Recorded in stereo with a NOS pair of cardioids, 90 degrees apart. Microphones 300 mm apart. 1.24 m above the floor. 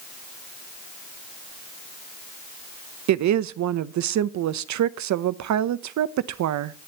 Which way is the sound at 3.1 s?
60° right.